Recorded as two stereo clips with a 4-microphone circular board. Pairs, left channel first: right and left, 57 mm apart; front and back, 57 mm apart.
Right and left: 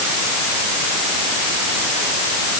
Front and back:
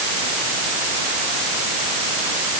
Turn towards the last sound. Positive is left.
No sound to turn to.